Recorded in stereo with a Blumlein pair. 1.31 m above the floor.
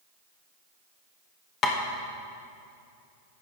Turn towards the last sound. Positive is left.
turn(degrees=30)